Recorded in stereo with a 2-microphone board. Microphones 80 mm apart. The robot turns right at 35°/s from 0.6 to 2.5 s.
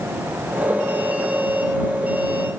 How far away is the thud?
I don't hear a thud.